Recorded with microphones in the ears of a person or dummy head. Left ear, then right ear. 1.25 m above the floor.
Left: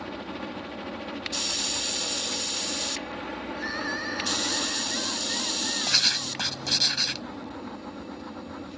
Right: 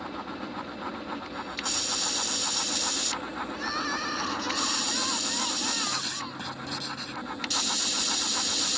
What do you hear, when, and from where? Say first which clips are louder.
0.0 s a helicopter: even; 40° left (ahead or behind)
3.5 s crying: even; 20° right (ahead or behind)
5.9 s writing: left 8 dB; 40° left (ahead or behind)